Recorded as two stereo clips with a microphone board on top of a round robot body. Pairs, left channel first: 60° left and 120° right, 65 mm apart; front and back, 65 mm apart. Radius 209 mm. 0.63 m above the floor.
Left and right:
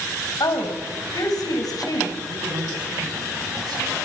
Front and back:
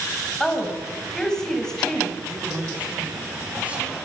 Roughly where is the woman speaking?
Left.